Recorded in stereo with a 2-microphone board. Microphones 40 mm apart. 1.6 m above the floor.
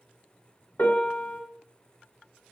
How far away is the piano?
About 1.9 m.